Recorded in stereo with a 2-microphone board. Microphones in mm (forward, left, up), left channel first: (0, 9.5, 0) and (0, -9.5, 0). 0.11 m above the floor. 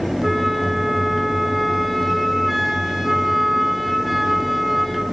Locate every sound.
0.2 s a flute: centre (ahead or behind), 4 m